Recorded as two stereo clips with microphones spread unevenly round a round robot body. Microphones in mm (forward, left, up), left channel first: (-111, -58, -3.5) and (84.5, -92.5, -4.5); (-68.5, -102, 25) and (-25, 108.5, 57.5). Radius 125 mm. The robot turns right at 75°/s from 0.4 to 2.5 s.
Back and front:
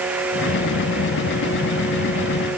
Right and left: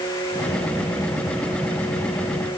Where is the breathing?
I don't hear breathing.